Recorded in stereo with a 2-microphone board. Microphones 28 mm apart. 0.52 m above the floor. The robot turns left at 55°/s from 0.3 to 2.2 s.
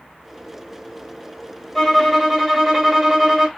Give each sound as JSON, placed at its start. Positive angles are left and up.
{"t": 1.8, "sound": "a violin", "side_deg": 20, "distance_m": 1.0}